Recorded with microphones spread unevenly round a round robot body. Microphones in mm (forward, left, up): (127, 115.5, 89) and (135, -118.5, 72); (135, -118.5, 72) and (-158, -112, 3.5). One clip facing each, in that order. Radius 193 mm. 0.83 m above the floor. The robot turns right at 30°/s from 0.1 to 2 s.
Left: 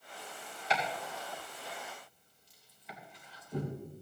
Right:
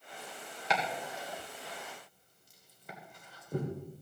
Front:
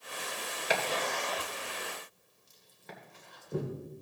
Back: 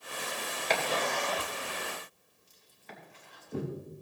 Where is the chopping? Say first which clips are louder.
Right 1 dB, back 1 dB; 85° right, 2.5 m; by 3.7 s 45° right, 2.5 m.